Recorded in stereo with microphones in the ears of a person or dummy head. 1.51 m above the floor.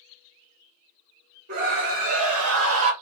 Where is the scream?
50° right (ahead or behind), 2.5 m; by 2.9 s 70° right (ahead or behind), 1.2 m.